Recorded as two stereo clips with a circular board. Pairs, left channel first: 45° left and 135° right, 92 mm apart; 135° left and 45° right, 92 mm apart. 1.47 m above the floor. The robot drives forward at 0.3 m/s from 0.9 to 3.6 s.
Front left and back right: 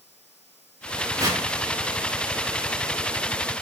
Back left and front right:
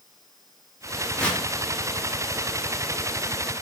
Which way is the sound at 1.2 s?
150° right.